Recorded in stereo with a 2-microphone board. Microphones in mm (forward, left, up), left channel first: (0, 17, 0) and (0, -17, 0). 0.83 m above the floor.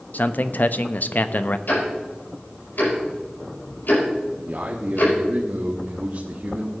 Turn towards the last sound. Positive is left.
turn(degrees=-55)  # may be behind; listen again after turning